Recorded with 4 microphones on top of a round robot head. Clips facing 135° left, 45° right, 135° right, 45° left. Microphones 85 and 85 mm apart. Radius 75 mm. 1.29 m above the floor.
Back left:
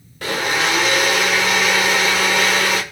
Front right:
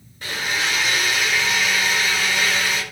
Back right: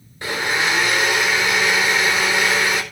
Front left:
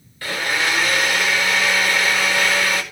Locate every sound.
0.2 s a blender: 155° left, 4.5 m